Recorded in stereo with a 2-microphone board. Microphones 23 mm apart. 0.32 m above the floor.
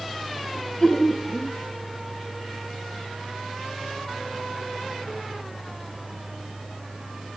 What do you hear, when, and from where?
0.6 s laughter: 30° left (ahead or behind), 2 m